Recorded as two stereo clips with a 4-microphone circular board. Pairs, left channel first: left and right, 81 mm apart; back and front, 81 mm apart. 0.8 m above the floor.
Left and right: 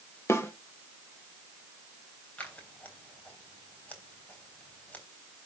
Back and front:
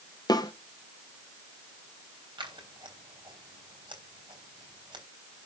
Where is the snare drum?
150° left, 1.8 m.